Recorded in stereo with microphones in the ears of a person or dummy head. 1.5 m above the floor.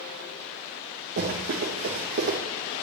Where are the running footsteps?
50° right (ahead or behind), 4 m; by 2.4 s 55° right (ahead or behind), 3.5 m.